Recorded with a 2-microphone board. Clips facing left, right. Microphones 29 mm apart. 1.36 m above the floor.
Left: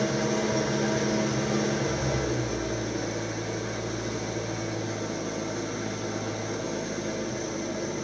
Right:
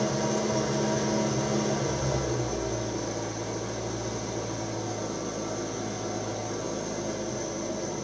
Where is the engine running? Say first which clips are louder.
Left 1 dB; 30° left (ahead or behind), 5 m.